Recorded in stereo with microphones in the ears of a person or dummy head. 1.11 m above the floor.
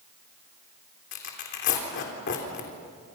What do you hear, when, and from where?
1.1 s tearing paper: 55° left (ahead or behind), 3.5 m